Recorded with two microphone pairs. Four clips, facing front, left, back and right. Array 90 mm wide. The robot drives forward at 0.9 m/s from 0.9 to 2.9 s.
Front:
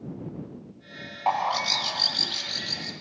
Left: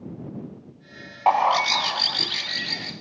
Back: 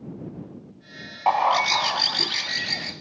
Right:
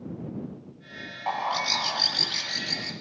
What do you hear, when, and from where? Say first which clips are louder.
1.3 s a bird: left 9 dB, back 5 dB; 115° left, 0.5 m; by 2.9 s 165° left, 1.7 m